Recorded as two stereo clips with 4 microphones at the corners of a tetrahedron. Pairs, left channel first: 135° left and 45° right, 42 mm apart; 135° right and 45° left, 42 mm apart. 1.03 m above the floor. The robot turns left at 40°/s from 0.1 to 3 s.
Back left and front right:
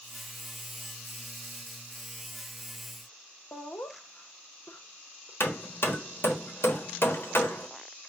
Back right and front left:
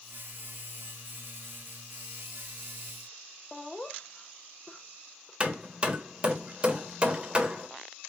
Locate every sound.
3.5 s laughter: 145° left, 0.9 m
5.4 s hammering: 110° left, 1.0 m